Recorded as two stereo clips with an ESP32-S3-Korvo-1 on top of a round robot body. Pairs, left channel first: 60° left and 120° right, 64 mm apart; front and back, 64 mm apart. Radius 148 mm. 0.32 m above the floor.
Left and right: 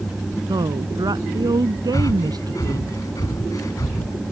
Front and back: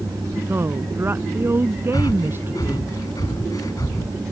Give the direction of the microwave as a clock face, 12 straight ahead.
No microwave in this recording.